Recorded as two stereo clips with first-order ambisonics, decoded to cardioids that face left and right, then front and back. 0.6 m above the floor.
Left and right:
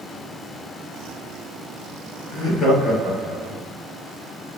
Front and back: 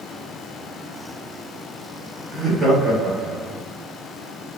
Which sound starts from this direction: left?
Laughter, at 2.3 s.